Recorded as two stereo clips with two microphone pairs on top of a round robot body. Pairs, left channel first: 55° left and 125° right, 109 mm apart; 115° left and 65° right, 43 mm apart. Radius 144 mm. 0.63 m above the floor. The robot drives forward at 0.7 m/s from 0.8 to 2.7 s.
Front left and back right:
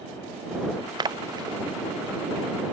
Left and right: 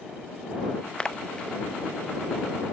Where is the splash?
Straight behind.